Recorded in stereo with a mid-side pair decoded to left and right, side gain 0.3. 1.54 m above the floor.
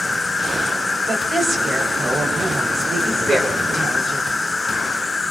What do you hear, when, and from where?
0.0 s an insect: 25° left, 1.9 m
1.1 s a woman speaking: 60° right, 4.5 m